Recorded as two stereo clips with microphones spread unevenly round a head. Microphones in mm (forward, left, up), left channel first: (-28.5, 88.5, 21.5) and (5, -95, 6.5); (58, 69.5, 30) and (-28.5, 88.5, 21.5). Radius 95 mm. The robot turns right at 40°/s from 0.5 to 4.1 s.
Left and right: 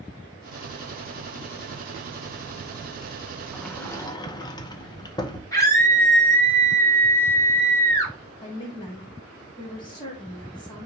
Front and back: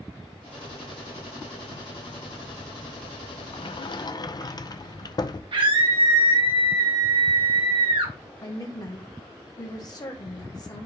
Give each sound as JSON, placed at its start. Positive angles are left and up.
{"t": 3.5, "sound": "a sliding door", "azimuth_deg": 5, "distance_m": 0.7}
{"t": 5.5, "sound": "a scream", "azimuth_deg": 175, "distance_m": 1.6}
{"t": 8.4, "sound": "a woman speaking", "azimuth_deg": 30, "distance_m": 2.5}